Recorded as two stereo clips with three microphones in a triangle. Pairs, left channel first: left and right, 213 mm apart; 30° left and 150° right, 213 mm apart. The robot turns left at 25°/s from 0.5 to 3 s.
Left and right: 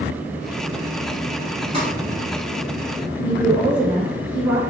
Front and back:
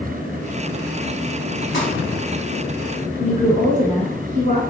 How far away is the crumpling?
About 1.9 m.